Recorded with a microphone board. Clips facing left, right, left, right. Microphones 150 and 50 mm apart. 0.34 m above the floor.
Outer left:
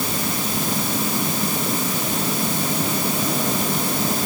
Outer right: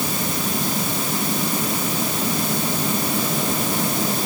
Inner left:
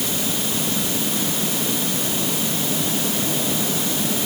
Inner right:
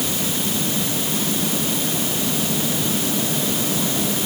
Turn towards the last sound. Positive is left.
No sound to turn to.